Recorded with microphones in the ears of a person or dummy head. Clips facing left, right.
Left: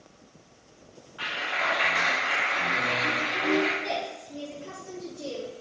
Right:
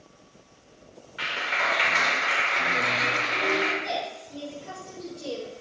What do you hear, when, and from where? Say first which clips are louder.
1.2 s a clap: right 1 dB; 35° right (ahead or behind), 2 m
3.8 s a woman speaking: even; 30° left (ahead or behind), 4 m